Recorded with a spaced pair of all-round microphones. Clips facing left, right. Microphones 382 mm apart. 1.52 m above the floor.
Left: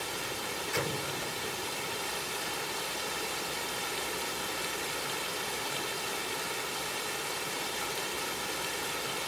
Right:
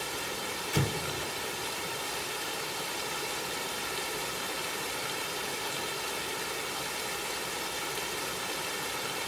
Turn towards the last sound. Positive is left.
turn(degrees=-50)  # may be behind; listen again after turning